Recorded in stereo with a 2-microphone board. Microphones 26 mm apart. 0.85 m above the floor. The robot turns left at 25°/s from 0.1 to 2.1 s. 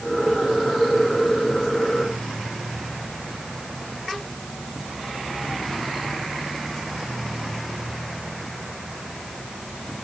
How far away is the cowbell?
No cowbell in this recording.